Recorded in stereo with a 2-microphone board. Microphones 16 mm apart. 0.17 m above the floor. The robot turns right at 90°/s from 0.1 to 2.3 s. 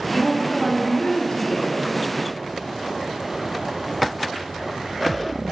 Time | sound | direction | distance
0.1 | a woman speaking | 15° right | 3.5 m